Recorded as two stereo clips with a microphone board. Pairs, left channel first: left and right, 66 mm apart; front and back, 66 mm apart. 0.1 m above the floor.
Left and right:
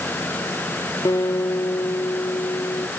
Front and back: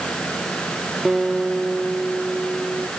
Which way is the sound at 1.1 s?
95° left.